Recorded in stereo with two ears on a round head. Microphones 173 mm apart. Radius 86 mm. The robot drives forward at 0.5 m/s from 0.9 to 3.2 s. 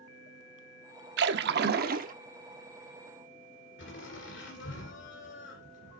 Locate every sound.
1.2 s a splash: 60° right (ahead or behind), 0.7 m; by 2.1 s 45° right (ahead or behind), 0.8 m
3.8 s laughter: 65° left (ahead or behind), 2.5 m